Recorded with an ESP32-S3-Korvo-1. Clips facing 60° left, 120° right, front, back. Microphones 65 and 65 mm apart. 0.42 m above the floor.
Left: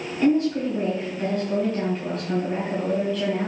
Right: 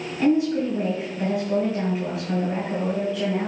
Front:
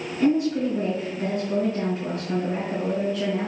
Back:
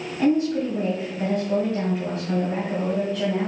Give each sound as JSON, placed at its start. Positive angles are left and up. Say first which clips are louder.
{"t": 0.2, "sound": "a woman speaking", "louder": "even, even", "azimuth_deg": 160, "distance_m": 2.0}